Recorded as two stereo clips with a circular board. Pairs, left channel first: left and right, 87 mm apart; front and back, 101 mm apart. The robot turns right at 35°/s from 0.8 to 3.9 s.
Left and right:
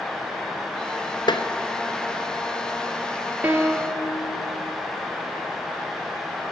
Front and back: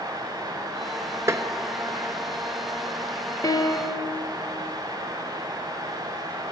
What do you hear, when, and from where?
1.3 s tapping: 115° left, 1.1 m; by 1.5 s 125° left, 1.1 m
3.4 s a piano: 30° right, 1.5 m; by 4.1 s 15° right, 1.5 m